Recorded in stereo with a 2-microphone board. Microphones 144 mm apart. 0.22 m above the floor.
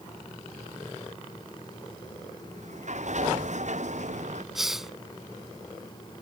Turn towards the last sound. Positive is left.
turn(degrees=0)  # may be behind; listen again after turning